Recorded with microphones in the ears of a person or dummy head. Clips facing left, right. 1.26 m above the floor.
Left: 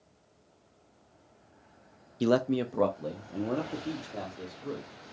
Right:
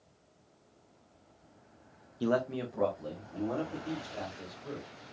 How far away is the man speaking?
About 0.5 m.